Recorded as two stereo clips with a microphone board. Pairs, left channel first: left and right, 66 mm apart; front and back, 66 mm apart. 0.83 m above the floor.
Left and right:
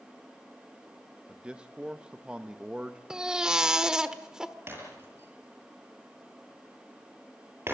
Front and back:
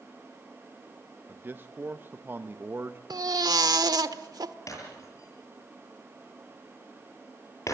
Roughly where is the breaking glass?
Ahead right.